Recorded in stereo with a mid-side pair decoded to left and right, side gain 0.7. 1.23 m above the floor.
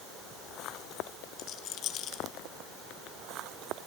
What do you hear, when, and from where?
1.4 s a rattle: 50° left, 1.5 m